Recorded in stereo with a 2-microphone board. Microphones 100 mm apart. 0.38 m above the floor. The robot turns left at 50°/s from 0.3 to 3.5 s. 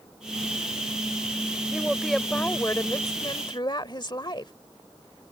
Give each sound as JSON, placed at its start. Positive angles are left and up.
{"t": 1.7, "sound": "a woman speaking", "azimuth_deg": -165}